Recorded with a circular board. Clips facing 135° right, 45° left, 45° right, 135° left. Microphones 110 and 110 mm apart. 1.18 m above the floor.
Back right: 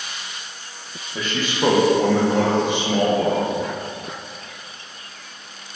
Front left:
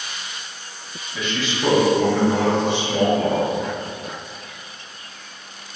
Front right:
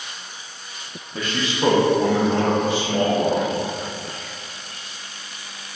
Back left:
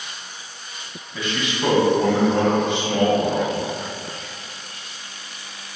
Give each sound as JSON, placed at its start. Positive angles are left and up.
{"t": 1.1, "sound": "a man speaking", "azimuth_deg": -85, "distance_m": 0.8}